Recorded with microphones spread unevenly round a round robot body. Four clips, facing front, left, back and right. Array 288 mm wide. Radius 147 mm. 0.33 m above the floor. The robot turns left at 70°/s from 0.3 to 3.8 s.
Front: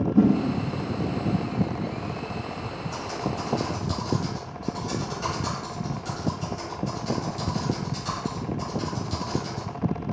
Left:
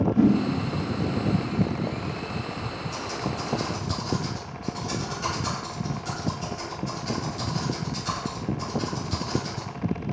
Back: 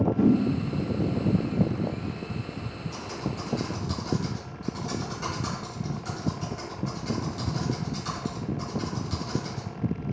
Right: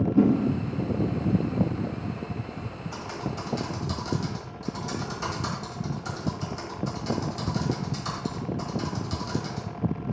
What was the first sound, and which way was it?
A whoosh, 30° right.